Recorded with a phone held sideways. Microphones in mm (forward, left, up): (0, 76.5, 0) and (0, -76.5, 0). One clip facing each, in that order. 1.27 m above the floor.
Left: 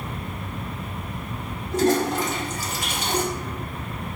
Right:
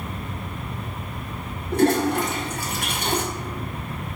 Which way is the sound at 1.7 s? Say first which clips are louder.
Right 2 dB; 60° right (ahead or behind).